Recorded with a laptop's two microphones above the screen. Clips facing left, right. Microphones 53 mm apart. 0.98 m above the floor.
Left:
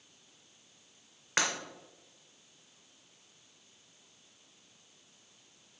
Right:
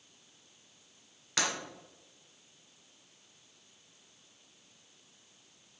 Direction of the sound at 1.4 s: 35° left (ahead or behind).